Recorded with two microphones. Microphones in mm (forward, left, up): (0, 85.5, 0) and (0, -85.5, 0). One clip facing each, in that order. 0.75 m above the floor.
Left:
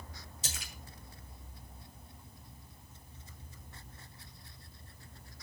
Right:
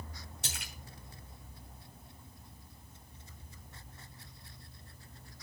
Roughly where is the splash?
Right.